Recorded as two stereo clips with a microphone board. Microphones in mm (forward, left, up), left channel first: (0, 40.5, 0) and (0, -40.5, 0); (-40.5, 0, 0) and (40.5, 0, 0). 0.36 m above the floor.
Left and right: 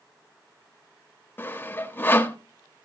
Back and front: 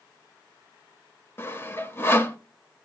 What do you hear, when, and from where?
1.4 s sawing: 135° left, 0.9 m